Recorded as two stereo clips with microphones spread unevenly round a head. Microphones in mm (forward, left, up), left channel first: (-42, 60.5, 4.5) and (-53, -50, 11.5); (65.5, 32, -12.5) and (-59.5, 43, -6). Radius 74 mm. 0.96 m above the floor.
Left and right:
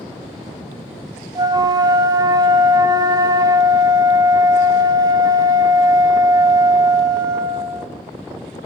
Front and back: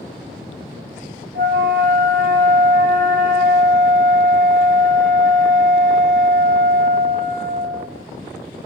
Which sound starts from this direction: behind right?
A flute, at 1.4 s.